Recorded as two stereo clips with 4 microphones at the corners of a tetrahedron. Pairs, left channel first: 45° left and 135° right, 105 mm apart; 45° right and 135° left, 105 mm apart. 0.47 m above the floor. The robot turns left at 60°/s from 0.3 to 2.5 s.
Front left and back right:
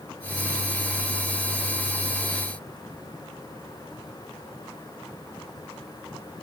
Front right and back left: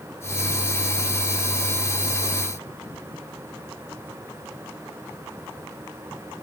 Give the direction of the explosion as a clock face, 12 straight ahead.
No explosion in this recording.